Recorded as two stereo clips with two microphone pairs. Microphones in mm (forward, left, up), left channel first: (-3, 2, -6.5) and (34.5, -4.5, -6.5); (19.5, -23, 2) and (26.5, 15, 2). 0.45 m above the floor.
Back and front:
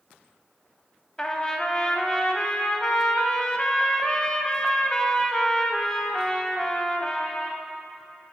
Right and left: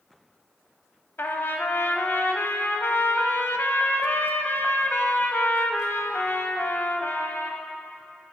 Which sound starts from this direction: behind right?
A trumpet, at 1.2 s.